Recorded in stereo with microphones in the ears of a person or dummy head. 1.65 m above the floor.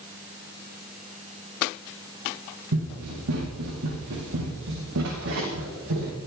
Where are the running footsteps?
70° right (ahead or behind), 5.5 m.